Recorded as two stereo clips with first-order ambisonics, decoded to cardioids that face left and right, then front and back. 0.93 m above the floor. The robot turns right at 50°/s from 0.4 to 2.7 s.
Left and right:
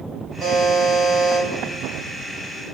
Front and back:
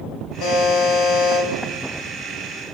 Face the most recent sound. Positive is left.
turn(degrees=90)